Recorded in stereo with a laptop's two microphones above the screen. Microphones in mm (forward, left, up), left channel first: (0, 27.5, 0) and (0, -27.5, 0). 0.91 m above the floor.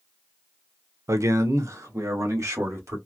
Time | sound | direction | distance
1.1 | a man speaking | 65° right (ahead or behind) | 0.5 m